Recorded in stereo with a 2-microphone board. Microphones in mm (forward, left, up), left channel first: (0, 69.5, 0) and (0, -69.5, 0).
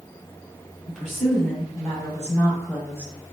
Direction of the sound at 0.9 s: 10° left (ahead or behind).